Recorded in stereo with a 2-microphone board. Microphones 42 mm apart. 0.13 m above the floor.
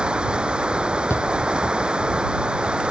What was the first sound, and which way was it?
Running water, 25° right (ahead or behind).